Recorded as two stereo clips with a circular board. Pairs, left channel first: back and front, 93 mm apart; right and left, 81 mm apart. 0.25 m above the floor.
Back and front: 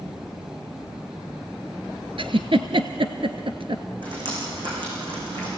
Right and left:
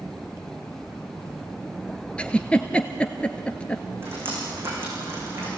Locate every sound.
2.2 s a giggle: 15° right, 1.1 m
4.0 s dripping: 30° left, 8.5 m